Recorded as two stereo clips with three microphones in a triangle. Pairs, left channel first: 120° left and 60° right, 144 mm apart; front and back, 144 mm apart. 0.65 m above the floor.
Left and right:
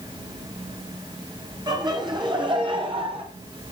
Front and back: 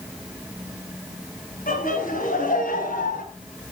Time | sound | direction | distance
1.7 | laughter | straight ahead | 4 m